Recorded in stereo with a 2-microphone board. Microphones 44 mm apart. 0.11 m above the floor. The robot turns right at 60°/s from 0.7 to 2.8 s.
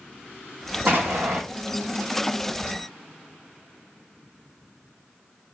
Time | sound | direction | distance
0.9 | an explosion | 120° right | 1.1 m